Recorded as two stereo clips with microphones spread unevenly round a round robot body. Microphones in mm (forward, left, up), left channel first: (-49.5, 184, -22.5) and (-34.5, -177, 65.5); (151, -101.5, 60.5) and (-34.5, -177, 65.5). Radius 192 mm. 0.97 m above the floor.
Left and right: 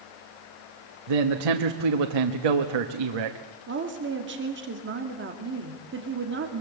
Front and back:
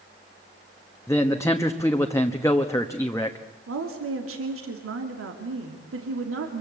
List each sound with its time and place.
1.1 s a man speaking: 55° right, 1.4 m
3.7 s a woman speaking: 150° right, 2.5 m